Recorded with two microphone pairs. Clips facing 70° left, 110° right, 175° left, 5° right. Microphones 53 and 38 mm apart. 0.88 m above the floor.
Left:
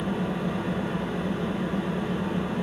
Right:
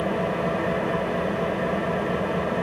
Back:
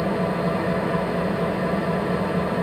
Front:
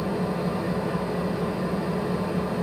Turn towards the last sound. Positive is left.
turn(degrees=-130)